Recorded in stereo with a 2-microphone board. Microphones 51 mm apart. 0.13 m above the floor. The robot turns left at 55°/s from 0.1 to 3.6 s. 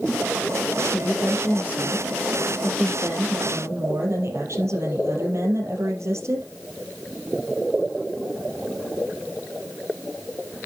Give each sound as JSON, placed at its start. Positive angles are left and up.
{"t": 0.8, "sound": "a woman speaking", "azimuth_deg": 90, "distance_m": 3.5}